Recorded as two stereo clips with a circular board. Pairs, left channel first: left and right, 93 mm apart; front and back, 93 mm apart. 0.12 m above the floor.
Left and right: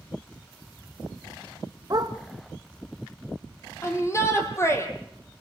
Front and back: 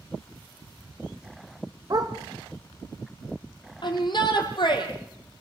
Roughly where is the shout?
Ahead left.